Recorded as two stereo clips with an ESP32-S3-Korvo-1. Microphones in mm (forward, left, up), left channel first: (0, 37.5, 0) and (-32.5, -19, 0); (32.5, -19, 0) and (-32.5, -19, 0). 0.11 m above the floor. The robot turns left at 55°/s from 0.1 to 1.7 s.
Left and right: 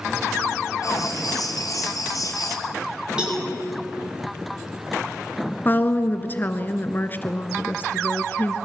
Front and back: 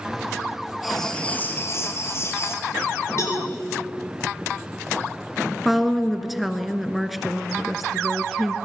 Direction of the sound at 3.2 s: 45° right.